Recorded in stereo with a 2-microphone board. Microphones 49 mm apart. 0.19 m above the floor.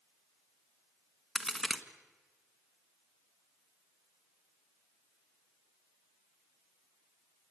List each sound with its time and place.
1.4 s a crack: centre (ahead or behind), 1.3 m